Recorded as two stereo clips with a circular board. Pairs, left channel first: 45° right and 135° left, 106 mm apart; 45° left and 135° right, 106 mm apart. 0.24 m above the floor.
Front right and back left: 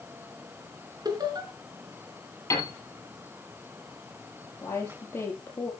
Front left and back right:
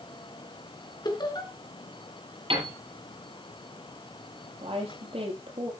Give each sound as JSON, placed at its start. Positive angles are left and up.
{"t": 1.1, "sound": "laughter", "azimuth_deg": 90, "distance_m": 3.0}
{"t": 2.5, "sound": "a piano", "azimuth_deg": -105, "distance_m": 7.5}
{"t": 4.6, "sound": "a woman speaking", "azimuth_deg": -115, "distance_m": 7.0}